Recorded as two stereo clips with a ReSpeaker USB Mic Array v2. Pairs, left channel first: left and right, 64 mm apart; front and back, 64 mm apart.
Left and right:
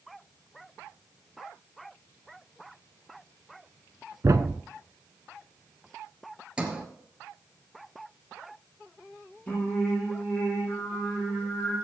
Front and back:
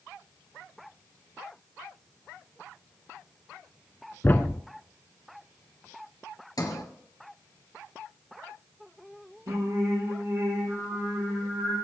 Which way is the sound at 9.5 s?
155° left.